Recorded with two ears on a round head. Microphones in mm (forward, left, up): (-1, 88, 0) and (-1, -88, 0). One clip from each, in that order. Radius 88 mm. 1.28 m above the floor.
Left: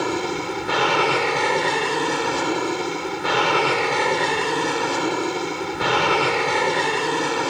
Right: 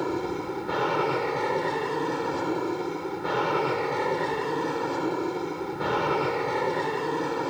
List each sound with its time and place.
0.0 s an aircraft: 65° left (ahead or behind)